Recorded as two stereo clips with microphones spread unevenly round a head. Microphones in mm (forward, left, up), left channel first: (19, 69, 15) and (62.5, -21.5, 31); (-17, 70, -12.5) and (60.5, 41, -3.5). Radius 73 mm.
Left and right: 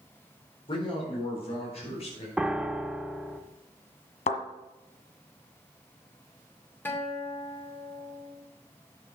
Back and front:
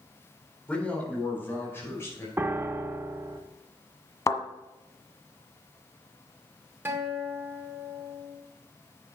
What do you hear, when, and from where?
0.7 s a man speaking: 85° left, 4 m; by 2.3 s 105° left, 5.5 m
2.4 s a piano: 30° left, 0.8 m
4.3 s a thud: 110° left, 1.7 m
6.8 s a guitar: 45° left, 2 m